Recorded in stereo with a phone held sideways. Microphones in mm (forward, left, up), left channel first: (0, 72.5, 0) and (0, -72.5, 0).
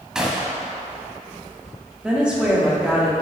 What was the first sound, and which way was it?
A gunshot, 5° right (ahead or behind).